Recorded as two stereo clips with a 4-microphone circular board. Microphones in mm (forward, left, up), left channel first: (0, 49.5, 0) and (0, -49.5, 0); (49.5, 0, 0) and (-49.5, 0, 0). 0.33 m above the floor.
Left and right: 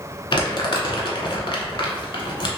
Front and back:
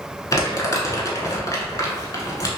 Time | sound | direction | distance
0.3 | crumpling | 55° left | 0.7 m